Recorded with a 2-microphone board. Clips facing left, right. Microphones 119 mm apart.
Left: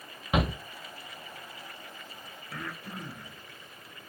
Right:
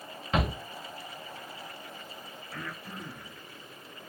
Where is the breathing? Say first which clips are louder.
Left 2 dB; 80° left, 1.1 m.